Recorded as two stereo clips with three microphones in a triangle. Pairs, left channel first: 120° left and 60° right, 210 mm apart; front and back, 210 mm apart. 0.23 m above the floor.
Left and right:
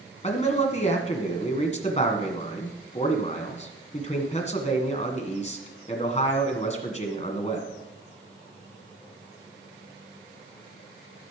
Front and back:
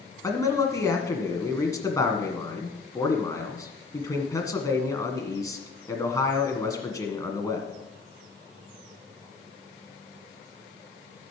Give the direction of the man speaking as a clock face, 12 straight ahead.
10 o'clock.